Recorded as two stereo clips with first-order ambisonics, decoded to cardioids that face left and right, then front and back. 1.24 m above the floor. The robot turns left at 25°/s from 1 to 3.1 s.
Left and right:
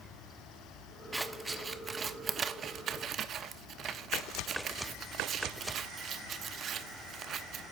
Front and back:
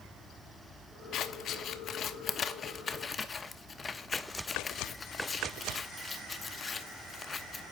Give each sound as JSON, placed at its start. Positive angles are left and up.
{"t": 1.1, "sound": "scissors", "azimuth_deg": -10, "distance_m": 0.8}